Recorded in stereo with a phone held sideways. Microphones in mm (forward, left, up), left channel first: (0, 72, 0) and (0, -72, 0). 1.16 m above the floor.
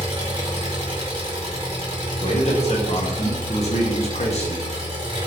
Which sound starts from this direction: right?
An engine running, at 0.0 s.